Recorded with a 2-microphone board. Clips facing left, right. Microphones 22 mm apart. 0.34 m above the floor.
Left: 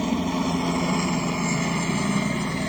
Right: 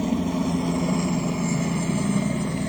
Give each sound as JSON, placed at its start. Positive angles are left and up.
{"t": 0.0, "sound": "a helicopter", "side_deg": 25}